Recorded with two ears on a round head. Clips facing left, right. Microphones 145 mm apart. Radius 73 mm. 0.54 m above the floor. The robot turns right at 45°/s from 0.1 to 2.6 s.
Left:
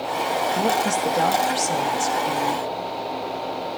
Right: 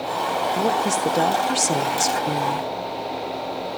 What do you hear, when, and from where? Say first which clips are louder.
0.6 s a woman speaking: right 1 dB; 175° right, 1.3 m; by 2.7 s 85° right, 1.3 m